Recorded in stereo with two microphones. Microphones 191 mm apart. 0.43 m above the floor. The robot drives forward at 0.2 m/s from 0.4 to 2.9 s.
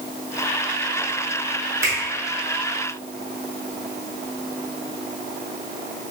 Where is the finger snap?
15° right (ahead or behind), 1.1 m.